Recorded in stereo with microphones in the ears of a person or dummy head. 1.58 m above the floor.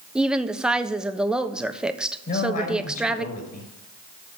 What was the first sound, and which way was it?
A woman speaking, 5° right (ahead or behind).